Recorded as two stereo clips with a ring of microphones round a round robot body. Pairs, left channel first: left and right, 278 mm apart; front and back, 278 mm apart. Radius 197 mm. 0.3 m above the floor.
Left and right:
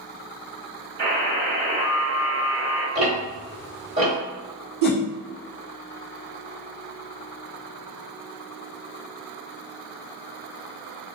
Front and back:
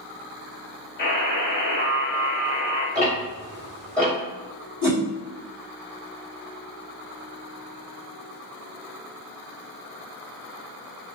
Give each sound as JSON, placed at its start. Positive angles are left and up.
{"t": 1.0, "sound": "a buzzer", "azimuth_deg": -30, "distance_m": 1.1}
{"t": 3.0, "sound": "ticking", "azimuth_deg": -65, "distance_m": 1.7}
{"t": 4.8, "sound": "a whoosh", "azimuth_deg": -80, "distance_m": 1.4}